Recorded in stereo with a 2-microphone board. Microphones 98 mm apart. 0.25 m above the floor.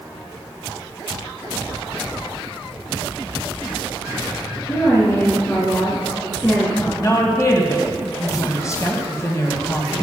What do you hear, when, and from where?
4.7 s a woman speaking: 25° left (ahead or behind), 3 m
7.0 s a woman speaking: 30° left (ahead or behind), 1.8 m